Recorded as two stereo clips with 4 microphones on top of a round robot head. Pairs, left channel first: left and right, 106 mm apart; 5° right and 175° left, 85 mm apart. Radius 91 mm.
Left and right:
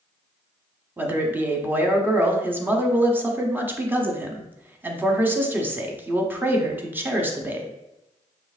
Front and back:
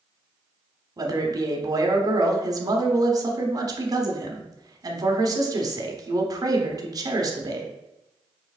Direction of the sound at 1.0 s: 160° right.